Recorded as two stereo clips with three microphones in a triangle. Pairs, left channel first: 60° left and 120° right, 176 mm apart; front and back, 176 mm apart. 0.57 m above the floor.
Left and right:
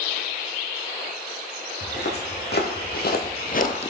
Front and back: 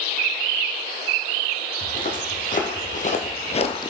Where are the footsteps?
40° left, 2.5 m; by 3.9 s 50° left, 0.6 m.